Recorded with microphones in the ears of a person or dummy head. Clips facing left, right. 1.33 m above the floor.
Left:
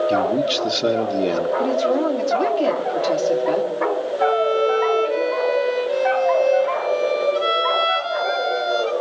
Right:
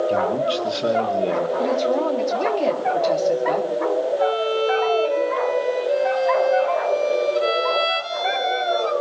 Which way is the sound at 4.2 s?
10° left (ahead or behind).